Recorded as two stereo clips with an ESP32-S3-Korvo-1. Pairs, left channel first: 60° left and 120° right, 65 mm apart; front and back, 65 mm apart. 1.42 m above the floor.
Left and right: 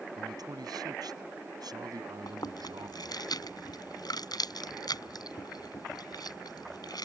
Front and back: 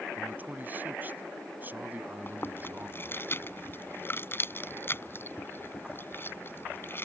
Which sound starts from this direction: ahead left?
Chewing, at 2.3 s.